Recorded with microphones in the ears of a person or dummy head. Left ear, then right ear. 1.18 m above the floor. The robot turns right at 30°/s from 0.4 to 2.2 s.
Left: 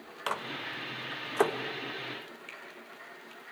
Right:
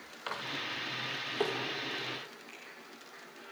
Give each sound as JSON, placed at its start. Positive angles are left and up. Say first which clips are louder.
{"t": 0.3, "sound": "a microwave", "louder": "left 2 dB", "side_deg": 80, "distance_m": 1.2}
{"t": 2.5, "sound": "a finger snap", "louder": "left 5 dB", "side_deg": 70, "distance_m": 4.5}